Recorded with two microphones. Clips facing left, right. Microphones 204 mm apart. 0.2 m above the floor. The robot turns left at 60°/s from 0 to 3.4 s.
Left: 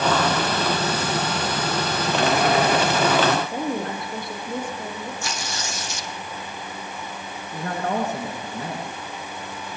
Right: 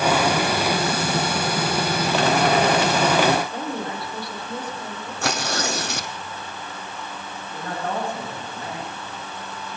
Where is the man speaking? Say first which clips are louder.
Left 3 dB; 75° left (ahead or behind), 10 m.